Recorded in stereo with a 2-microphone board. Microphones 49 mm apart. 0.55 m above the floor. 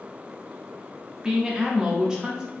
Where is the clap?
No clap in this recording.